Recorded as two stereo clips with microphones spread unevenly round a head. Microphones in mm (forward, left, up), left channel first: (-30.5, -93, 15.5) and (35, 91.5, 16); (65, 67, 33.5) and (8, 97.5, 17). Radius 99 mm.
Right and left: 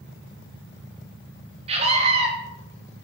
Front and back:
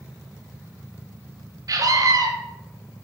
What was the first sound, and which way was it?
A scream, 130° left.